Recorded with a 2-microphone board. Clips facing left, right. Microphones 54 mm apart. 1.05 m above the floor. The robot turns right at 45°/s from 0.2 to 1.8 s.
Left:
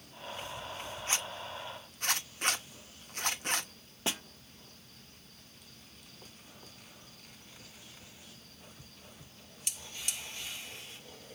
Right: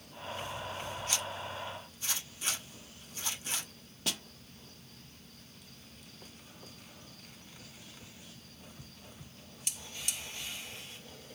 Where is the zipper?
30° left (ahead or behind), 1.0 m; by 3.7 s 60° left (ahead or behind), 1.0 m.